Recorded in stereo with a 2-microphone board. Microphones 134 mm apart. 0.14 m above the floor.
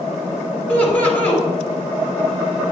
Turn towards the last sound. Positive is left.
turn(degrees=10)  # may be behind; listen again after turning